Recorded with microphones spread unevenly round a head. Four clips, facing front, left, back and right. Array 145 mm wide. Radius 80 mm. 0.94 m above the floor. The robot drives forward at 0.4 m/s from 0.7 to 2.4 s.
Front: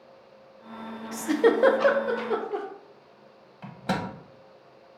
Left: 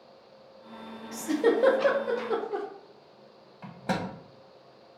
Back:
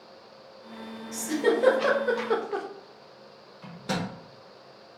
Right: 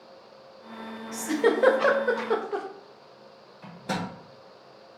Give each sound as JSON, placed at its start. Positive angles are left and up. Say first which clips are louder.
{"t": 1.1, "sound": "a giggle", "louder": "right 1 dB, front 3 dB", "azimuth_deg": -20, "distance_m": 0.6}
{"t": 3.6, "sound": "a microwave", "louder": "left 1 dB, front 2 dB", "azimuth_deg": 65, "distance_m": 0.6}